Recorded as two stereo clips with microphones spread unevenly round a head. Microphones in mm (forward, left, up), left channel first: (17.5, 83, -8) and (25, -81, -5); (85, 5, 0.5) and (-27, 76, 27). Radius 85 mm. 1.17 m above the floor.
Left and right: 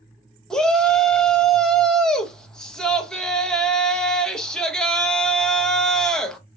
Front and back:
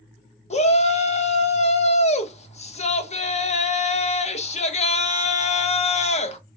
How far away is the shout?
About 0.9 m.